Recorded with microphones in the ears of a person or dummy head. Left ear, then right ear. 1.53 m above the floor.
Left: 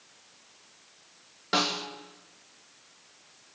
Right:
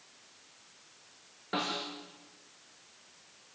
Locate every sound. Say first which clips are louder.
1.5 s a snare drum: left 7 dB; 80° left, 2.5 m